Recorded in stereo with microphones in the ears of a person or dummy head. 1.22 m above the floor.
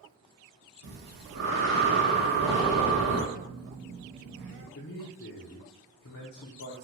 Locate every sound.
0.8 s breathing: 75° right (ahead or behind), 0.8 m
3.3 s a phone buzzing: 65° right (ahead or behind), 0.5 m
4.8 s a man speaking: 60° left (ahead or behind), 0.5 m